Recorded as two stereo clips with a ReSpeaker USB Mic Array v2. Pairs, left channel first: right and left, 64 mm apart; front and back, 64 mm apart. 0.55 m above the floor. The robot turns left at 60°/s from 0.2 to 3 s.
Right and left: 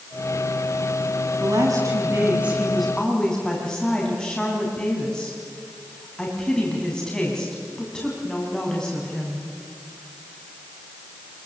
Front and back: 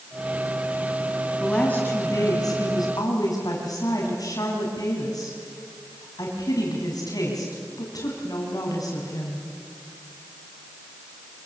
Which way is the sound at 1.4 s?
85° left.